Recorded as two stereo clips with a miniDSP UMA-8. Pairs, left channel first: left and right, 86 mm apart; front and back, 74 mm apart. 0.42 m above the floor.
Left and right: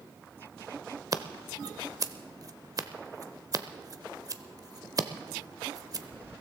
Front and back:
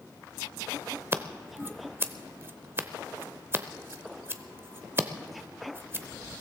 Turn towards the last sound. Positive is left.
turn(degrees=-125)